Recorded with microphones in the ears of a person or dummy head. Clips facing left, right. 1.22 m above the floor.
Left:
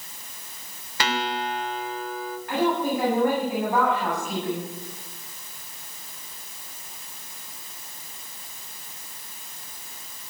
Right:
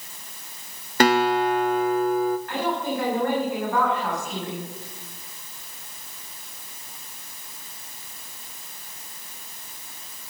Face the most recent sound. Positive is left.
turn(degrees=20)  # may be behind; listen again after turning